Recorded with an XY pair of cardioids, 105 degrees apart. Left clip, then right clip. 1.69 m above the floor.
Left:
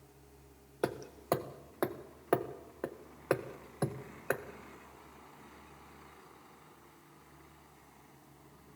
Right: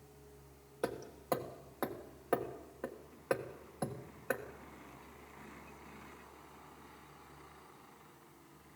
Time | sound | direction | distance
0.8 | hammering | 30° left | 1.5 m